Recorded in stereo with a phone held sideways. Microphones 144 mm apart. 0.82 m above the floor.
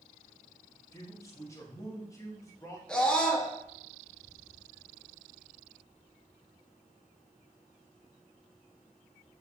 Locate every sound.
0.9 s a man speaking: 20° left (ahead or behind), 0.8 m
2.9 s a scream: 5° left (ahead or behind), 0.7 m